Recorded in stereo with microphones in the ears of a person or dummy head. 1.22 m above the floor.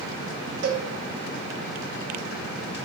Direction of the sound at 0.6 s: 85° right.